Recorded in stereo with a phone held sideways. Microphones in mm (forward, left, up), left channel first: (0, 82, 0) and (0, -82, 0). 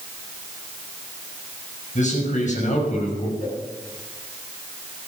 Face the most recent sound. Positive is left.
turn(degrees=60)  # may be behind; listen again after turning